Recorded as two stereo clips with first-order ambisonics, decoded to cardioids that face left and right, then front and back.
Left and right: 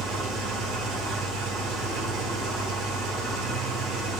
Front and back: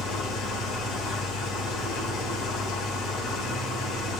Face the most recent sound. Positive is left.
turn(degrees=-50)